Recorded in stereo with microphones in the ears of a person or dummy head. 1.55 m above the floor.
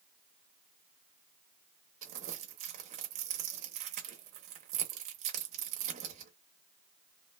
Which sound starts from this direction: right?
Crumpling, at 2.0 s.